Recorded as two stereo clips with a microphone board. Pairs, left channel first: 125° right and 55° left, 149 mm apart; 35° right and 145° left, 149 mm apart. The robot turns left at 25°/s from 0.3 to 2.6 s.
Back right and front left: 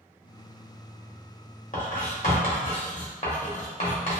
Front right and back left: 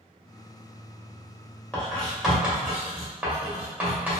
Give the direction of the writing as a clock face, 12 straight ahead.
4 o'clock.